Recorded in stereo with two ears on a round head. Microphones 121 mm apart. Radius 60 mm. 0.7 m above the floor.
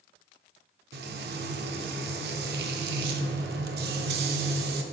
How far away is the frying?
About 0.7 m.